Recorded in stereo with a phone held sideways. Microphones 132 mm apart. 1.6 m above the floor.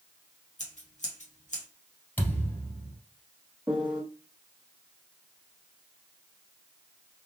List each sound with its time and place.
0.6 s scissors: 65° left (ahead or behind), 1.2 m
2.2 s a thud: 15° left (ahead or behind), 2 m
3.7 s a piano: 10° right (ahead or behind), 0.9 m